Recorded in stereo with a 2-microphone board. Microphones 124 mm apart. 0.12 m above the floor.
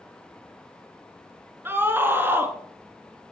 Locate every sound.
1.6 s a scream: 20° right (ahead or behind), 1.4 m